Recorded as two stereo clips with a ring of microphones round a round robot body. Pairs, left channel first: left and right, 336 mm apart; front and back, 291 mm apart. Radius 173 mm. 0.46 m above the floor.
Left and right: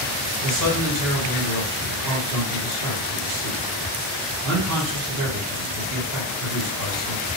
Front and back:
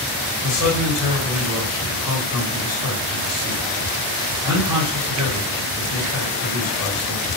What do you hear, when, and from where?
0.4 s a man speaking: 90° right, 2 m